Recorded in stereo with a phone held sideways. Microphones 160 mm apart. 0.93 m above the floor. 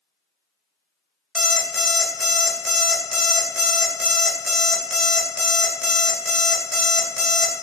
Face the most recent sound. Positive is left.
turn(degrees=0)  # may be behind; listen again after turning